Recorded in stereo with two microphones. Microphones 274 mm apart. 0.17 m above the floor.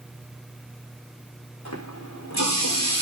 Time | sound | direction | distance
1.6 | a running tap | 80° left | 8 m